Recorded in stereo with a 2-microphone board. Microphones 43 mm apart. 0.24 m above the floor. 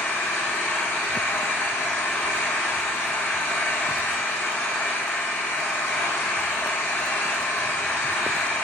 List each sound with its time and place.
0.0 s an engine running: 65° left (ahead or behind), 0.9 m